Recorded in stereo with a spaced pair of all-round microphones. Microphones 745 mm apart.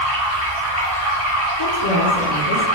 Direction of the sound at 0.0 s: 20° left (ahead or behind).